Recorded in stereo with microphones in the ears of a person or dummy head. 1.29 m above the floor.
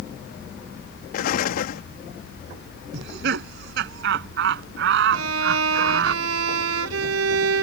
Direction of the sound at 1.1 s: 50° left (ahead or behind).